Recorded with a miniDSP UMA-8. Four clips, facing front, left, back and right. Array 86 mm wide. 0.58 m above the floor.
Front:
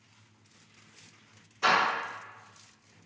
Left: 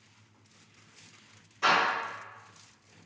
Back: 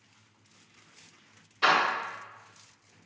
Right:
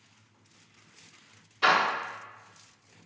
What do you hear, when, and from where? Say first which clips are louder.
1.6 s a door slam: right 2 dB, back 1 dB; 150° right, 0.8 m